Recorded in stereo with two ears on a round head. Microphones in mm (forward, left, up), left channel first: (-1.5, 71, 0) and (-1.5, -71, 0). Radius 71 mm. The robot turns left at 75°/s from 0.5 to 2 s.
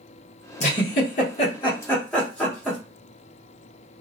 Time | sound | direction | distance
0.6 | a giggle | 45° left (ahead or behind) | 1.0 m